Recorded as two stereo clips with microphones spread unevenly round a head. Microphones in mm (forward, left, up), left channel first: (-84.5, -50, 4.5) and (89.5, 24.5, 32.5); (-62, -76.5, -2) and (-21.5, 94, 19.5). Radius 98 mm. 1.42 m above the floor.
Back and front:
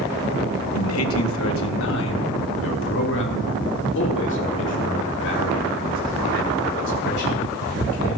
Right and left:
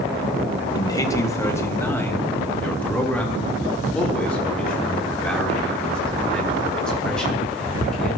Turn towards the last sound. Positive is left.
turn(degrees=170)